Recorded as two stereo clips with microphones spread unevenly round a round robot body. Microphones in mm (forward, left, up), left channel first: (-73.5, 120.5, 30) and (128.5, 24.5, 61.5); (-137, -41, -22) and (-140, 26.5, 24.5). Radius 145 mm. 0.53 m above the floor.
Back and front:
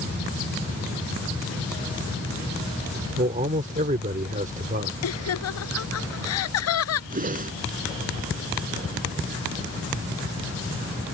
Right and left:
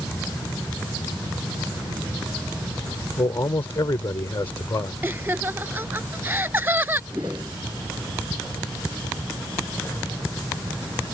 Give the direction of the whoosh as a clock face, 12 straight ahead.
11 o'clock.